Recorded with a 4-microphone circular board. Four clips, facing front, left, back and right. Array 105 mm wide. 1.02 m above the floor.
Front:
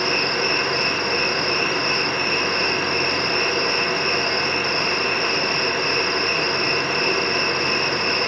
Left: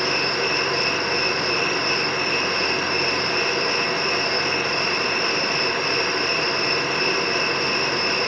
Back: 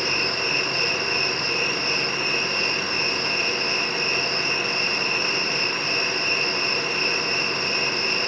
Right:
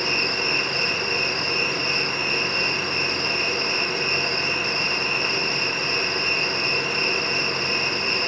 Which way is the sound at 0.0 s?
20° left.